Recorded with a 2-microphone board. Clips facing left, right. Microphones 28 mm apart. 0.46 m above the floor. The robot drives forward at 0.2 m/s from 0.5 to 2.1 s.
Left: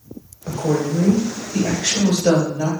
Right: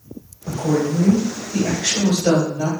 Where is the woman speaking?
35° left (ahead or behind), 1.3 m; by 2.7 s 30° left (ahead or behind), 1.5 m.